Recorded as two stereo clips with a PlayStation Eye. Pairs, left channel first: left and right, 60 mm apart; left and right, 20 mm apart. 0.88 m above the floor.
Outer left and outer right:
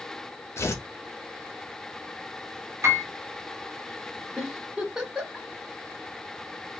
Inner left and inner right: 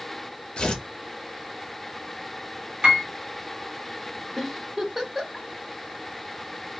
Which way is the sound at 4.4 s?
10° right (ahead or behind).